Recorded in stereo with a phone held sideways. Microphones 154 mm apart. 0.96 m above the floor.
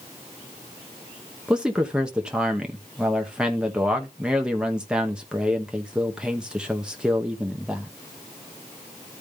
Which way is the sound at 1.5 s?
5° right (ahead or behind).